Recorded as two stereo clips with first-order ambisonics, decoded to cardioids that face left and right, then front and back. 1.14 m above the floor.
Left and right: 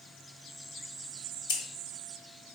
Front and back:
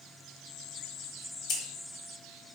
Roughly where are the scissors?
Ahead left.